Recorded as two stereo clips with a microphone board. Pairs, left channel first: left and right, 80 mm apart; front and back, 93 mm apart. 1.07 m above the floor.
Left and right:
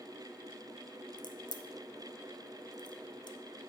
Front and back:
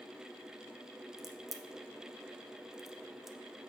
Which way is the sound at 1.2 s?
95° left.